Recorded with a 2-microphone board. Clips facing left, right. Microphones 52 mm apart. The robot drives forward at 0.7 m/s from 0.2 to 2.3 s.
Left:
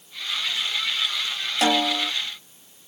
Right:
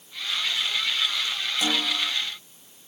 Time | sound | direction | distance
1.6 | a snare drum | 75° left (ahead or behind) | 1.4 m